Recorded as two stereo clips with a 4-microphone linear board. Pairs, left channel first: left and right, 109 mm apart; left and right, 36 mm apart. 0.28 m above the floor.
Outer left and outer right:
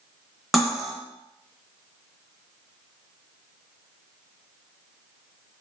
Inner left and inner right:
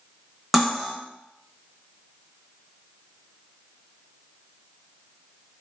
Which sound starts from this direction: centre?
Cutlery clinking, at 0.5 s.